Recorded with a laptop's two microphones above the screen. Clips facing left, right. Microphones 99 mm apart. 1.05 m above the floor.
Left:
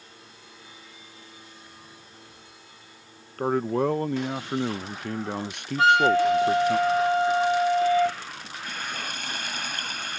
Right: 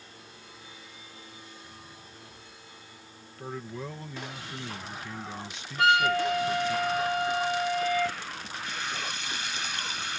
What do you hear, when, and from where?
3.4 s a man speaking: 65° left (ahead or behind)
5.8 s a flute: 35° left (ahead or behind)
8.7 s frying: 50° left (ahead or behind)